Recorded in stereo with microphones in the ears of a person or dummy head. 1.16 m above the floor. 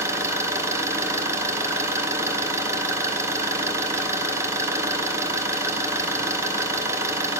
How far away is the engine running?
About 0.7 m.